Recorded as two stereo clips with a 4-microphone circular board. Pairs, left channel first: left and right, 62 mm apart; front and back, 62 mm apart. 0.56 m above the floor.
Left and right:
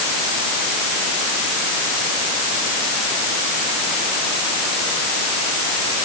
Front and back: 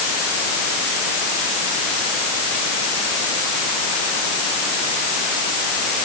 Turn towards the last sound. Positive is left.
No sound to turn to.